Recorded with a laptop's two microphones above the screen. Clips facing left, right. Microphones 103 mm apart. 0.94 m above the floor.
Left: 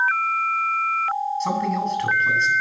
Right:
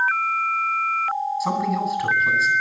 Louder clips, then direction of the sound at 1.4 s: Right 1 dB; 5° right (ahead or behind).